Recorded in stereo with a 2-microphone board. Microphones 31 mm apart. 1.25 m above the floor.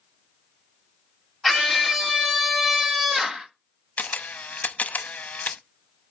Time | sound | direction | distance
1.4 | a scream | 5° right (ahead or behind) | 2.5 m
4.0 | a camera shutter | 55° left (ahead or behind) | 0.9 m